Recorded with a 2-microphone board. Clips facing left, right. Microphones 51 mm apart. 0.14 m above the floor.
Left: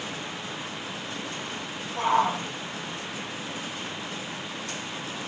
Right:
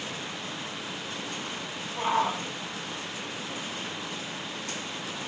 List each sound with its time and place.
2.0 s a shout: 55° left (ahead or behind), 6.5 m